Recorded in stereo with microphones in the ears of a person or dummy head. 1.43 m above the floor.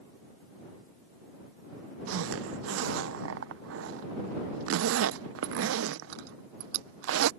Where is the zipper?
75° right (ahead or behind).